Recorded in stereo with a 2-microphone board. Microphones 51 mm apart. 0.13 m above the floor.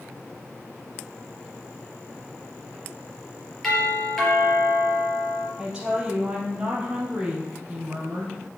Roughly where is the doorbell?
Centre.